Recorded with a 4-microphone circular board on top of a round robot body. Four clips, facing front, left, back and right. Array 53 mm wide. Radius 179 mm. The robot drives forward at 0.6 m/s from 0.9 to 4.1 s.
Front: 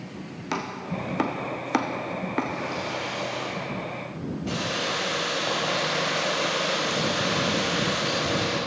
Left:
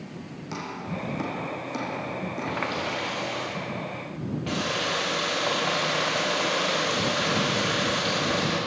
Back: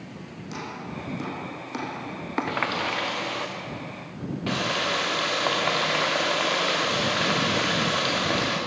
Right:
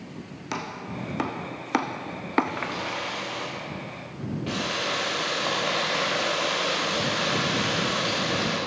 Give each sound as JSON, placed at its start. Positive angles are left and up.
{"t": 0.5, "sound": "chopping", "azimuth_deg": -30, "distance_m": 1.0}
{"t": 2.5, "sound": "a running tap", "azimuth_deg": 175, "distance_m": 0.5}